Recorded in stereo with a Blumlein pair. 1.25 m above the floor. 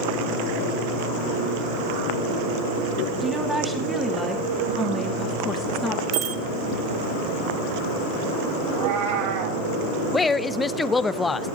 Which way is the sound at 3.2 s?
20° right.